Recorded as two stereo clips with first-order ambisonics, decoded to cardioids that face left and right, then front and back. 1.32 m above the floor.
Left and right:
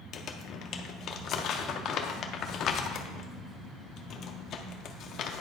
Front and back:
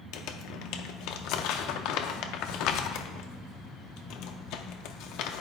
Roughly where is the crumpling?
Ahead left.